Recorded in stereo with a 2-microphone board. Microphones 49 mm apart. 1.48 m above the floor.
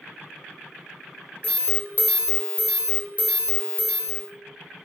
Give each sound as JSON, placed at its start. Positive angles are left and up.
{"t": 1.4, "sound": "an alarm", "side_deg": 35, "distance_m": 0.5}